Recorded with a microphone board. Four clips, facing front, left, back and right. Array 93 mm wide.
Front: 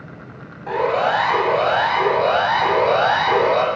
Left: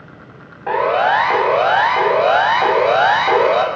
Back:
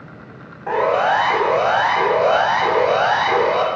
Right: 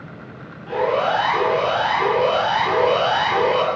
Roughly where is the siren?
Behind left.